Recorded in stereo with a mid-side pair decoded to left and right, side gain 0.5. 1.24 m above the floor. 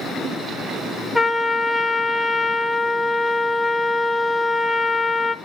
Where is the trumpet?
10° left, 1.1 m.